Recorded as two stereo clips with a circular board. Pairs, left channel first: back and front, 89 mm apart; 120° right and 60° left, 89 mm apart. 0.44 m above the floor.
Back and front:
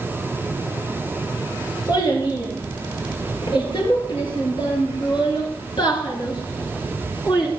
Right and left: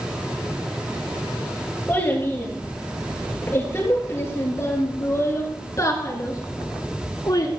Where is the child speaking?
170° left, 6.5 m; by 7.5 s 155° right, 3.5 m.